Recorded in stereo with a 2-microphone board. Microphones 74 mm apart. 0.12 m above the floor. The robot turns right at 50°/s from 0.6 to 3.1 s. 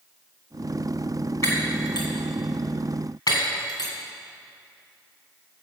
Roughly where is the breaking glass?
Left.